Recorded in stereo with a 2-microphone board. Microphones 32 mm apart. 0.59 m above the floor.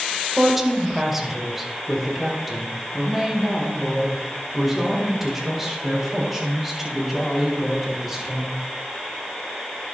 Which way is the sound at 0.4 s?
10° right (ahead or behind).